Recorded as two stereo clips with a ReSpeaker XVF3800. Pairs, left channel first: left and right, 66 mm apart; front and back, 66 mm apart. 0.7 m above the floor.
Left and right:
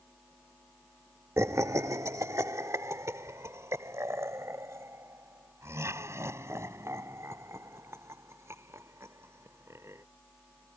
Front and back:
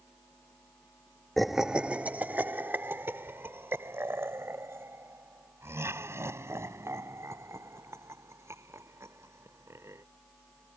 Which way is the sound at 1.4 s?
85° right.